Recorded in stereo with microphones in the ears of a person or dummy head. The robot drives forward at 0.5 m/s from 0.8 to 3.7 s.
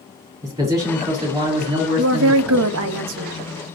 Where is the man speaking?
20° right (ahead or behind), 2.5 m; by 2.7 s 35° right (ahead or behind), 1.5 m.